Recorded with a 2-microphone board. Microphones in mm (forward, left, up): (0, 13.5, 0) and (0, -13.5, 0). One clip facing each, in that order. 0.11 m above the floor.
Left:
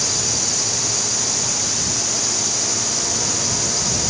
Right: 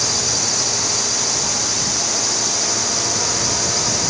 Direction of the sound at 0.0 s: 20° right (ahead or behind).